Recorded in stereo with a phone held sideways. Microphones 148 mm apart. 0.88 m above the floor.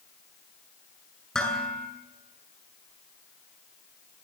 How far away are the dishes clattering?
About 7.5 m.